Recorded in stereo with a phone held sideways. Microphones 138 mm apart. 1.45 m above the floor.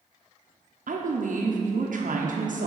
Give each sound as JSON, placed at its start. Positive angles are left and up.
{"t": 0.9, "sound": "a woman speaking", "side_deg": -70, "distance_m": 0.5}